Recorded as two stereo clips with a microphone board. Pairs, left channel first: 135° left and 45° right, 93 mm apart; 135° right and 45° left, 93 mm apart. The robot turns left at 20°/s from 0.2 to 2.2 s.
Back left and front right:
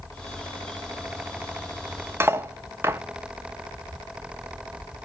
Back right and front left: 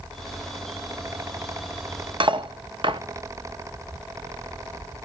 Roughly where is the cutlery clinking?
Ahead.